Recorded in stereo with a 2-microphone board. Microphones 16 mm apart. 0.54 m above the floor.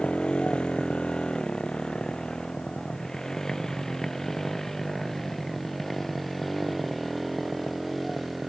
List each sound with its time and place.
0.0 s a motorcycle: 70° left (ahead or behind); by 8.5 s 5° right (ahead or behind)